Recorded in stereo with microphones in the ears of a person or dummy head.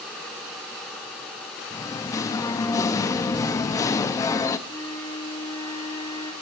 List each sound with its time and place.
1.7 s singing: 15° left (ahead or behind), 1.2 m
4.7 s a flute: 15° left (ahead or behind), 3.5 m